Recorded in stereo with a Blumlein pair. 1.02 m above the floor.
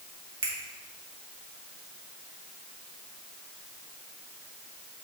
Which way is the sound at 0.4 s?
60° right.